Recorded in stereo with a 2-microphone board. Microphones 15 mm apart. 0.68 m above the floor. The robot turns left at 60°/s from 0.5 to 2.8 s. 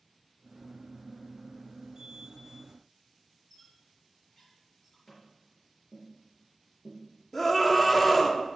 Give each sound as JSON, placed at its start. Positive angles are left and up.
{"t": 3.5, "sound": "a squeak", "side_deg": 35, "distance_m": 6.5}
{"t": 5.1, "sound": "tapping", "side_deg": 30, "distance_m": 5.0}
{"t": 7.3, "sound": "a scream", "side_deg": 15, "distance_m": 1.6}